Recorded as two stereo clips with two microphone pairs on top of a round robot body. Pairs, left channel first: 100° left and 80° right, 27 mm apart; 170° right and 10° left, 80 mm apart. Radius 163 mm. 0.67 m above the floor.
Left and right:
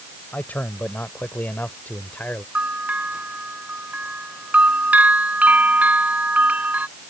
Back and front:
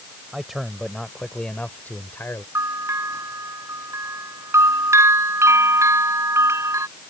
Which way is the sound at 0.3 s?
95° left.